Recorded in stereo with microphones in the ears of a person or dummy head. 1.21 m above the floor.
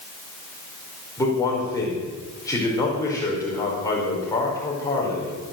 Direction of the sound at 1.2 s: 15° left (ahead or behind).